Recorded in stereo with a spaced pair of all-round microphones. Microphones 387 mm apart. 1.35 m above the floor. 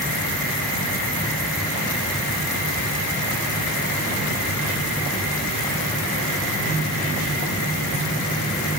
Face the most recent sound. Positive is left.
No sound to turn to.